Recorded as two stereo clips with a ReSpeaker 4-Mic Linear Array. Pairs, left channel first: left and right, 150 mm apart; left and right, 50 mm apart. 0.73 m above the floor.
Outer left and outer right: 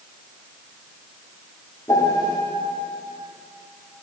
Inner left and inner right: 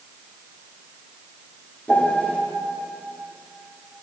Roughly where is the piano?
Left.